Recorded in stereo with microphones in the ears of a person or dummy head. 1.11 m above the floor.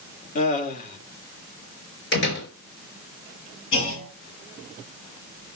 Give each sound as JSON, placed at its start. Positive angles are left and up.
{"t": 0.3, "sound": "laughter", "side_deg": 50, "distance_m": 2.5}
{"t": 2.1, "sound": "a door slam", "side_deg": 55, "distance_m": 5.0}
{"t": 3.7, "sound": "a clunk", "side_deg": 80, "distance_m": 8.0}